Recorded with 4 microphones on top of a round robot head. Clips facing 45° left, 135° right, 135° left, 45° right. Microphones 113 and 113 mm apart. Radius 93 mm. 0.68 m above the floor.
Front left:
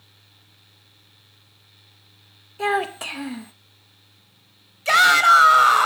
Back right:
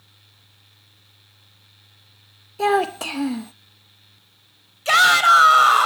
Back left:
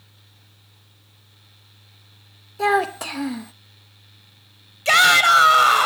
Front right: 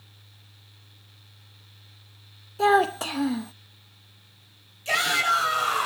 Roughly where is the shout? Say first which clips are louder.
Even, back left 9 dB; behind left.